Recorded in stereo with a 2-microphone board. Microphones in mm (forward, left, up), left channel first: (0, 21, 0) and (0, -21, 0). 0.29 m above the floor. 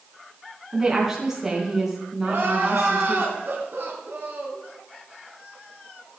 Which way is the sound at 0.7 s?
15° right (ahead or behind).